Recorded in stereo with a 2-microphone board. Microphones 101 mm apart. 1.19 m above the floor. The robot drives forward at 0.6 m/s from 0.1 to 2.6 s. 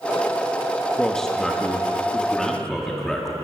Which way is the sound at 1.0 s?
5° left (ahead or behind).